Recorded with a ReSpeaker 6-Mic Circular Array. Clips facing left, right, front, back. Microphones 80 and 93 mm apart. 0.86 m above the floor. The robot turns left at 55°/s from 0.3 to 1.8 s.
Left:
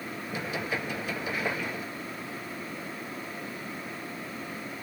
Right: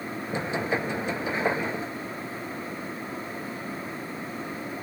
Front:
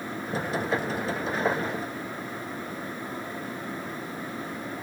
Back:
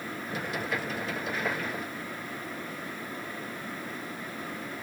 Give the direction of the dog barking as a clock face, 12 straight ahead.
No dog barking in this recording.